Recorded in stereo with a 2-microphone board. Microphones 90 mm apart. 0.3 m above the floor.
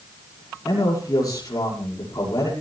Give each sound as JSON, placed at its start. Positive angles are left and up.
{"t": 0.7, "sound": "a man speaking", "side_deg": 45, "distance_m": 9.0}